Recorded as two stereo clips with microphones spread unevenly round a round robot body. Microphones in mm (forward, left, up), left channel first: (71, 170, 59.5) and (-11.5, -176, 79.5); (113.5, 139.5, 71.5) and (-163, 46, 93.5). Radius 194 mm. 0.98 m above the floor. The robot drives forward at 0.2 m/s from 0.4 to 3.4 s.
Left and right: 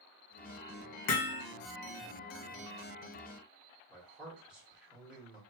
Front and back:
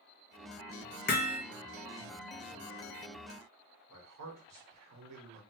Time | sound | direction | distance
1.1 | hammering | 70° left | 0.9 m
3.9 | a man speaking | 170° left | 1.5 m